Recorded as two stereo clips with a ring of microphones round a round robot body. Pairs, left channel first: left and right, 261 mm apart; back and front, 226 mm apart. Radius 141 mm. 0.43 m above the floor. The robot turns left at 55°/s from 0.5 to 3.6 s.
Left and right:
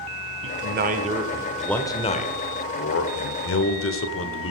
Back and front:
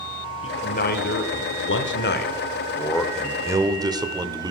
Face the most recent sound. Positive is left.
turn(degrees=70)